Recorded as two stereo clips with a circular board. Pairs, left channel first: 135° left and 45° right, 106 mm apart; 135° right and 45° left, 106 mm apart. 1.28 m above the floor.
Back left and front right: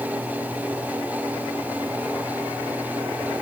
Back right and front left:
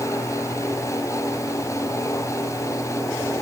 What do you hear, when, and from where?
Only background noise.